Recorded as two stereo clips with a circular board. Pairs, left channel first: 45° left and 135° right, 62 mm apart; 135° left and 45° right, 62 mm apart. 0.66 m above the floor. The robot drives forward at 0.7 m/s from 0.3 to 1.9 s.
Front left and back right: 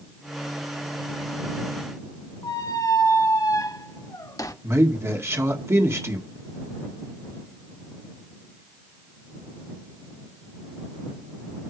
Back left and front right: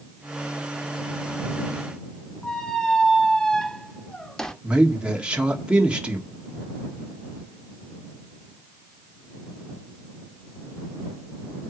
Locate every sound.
2.4 s a squeak: 55° left, 0.9 m
4.6 s a man speaking: 110° right, 1.7 m